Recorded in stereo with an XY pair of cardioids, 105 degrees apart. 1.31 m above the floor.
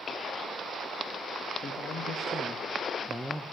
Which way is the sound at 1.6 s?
45° left.